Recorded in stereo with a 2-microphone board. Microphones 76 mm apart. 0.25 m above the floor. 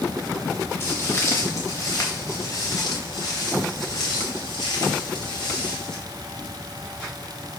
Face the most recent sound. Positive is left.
turn(degrees=70)  # may be behind; listen again after turning